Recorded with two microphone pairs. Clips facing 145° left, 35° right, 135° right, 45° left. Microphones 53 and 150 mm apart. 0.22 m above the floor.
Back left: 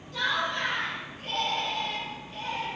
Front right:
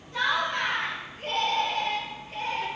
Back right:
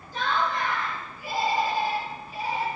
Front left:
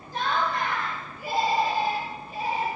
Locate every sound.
0.1 s laughter: 25° left, 2.5 m; by 2.7 s 5° left, 3.5 m